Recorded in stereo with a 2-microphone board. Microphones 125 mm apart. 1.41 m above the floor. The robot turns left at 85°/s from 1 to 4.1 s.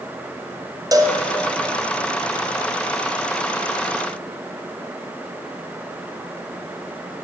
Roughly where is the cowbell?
Right.